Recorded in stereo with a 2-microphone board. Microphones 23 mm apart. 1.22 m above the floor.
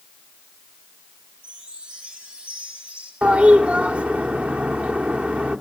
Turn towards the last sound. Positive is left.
turn(degrees=-70)  # may be behind; listen again after turning